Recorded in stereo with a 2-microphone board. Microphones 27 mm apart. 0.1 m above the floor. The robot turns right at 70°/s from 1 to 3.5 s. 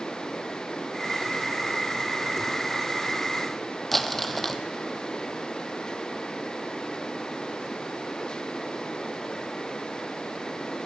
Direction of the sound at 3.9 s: 10° left (ahead or behind).